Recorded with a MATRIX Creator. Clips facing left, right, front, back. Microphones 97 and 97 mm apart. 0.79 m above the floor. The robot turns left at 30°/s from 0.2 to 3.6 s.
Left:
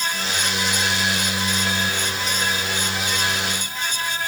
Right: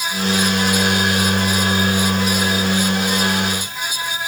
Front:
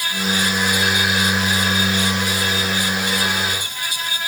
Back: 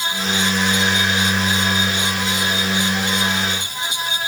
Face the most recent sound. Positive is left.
No sound to turn to.